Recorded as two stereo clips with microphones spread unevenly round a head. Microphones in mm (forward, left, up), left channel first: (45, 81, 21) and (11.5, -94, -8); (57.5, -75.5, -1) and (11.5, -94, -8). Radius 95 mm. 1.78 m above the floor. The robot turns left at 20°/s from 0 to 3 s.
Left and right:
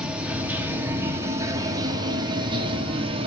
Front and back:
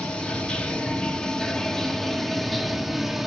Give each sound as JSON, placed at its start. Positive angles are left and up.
{"t": 0.0, "sound": "running water", "azimuth_deg": 0, "distance_m": 0.7}